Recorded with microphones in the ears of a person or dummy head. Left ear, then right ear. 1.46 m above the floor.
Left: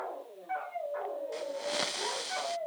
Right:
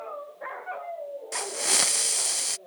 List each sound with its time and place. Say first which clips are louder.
1.3 s a hiss: right 10 dB; 75° right (ahead or behind)